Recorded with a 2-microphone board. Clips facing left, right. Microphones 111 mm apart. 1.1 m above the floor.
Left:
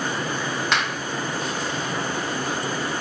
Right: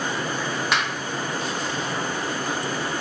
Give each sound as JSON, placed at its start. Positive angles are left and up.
{"t": 0.7, "sound": "a finger snap", "side_deg": -10, "distance_m": 1.3}